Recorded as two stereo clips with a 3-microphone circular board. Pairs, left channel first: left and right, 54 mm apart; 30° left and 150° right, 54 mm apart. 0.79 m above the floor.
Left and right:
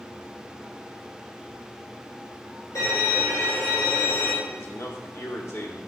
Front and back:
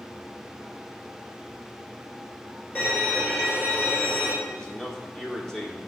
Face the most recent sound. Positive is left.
turn(degrees=105)